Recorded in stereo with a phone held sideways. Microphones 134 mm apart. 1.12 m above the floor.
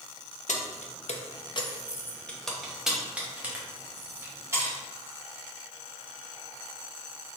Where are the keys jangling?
75° left (ahead or behind), 0.7 m; by 4.8 s 20° right (ahead or behind), 1.8 m.